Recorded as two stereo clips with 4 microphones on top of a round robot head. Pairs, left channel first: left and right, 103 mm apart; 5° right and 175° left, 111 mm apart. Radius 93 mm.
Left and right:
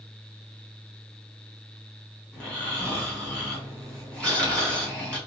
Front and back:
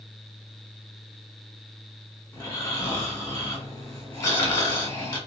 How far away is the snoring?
About 1.3 m.